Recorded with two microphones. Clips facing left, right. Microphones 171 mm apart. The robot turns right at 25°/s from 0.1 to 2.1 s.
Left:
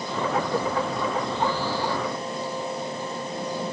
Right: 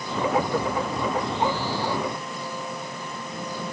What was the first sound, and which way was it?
Only background noise.